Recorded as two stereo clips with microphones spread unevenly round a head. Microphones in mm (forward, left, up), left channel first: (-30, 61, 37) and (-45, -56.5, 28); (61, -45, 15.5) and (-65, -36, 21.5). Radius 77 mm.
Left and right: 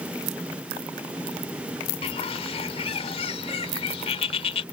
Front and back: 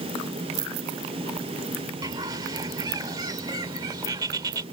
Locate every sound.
2.0 s a bird: 115° left